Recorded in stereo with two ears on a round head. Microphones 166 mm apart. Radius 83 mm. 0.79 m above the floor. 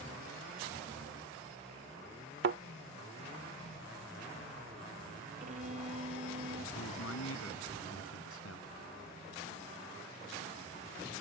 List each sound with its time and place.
2.4 s a thud: 65° right (ahead or behind)
5.4 s a violin: 40° right (ahead or behind)
6.8 s a man speaking: 85° left